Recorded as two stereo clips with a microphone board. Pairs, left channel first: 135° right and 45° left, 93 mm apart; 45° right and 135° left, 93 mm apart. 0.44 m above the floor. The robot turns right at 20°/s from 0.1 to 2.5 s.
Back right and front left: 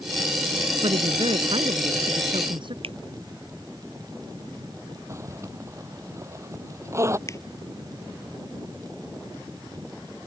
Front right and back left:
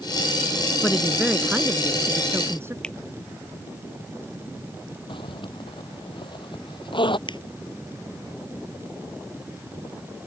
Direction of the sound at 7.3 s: 80° right.